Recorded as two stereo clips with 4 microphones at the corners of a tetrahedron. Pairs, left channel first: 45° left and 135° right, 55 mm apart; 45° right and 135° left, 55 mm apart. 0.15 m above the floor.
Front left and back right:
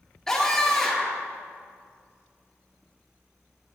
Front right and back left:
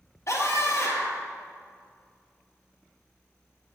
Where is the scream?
35° right, 3 m.